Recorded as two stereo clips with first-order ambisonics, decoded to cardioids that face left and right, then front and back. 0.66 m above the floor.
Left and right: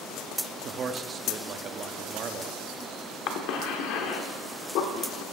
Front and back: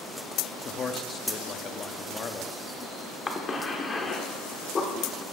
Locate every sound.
0.6 s a man speaking: 50° right, 0.6 m
3.3 s a cough: 70° left, 1.3 m